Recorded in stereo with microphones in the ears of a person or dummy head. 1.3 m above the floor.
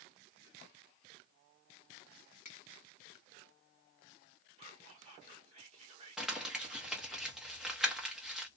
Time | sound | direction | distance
2.5 | a finger snap | 45° left (ahead or behind) | 1.0 m
4.6 | whispering | 30° right (ahead or behind) | 1.0 m
6.2 | crumpling | centre (ahead or behind) | 0.9 m